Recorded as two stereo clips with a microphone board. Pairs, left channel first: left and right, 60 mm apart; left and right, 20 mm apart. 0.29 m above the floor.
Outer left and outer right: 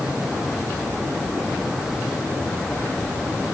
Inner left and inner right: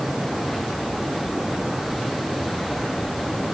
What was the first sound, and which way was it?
Only background noise.